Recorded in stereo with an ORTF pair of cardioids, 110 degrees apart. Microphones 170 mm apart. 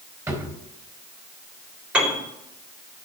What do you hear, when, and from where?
0.3 s a drawer: 10° right, 4 m
1.9 s a piano: 10° right, 3.5 m